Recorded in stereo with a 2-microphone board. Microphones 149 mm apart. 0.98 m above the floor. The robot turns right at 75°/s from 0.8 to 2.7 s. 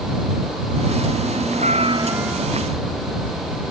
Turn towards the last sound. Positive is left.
turn(degrees=25)